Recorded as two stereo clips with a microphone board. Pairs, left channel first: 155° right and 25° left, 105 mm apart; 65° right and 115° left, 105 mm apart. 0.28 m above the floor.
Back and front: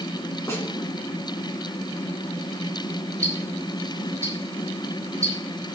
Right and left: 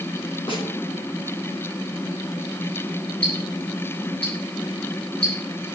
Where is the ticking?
40° right, 6 m.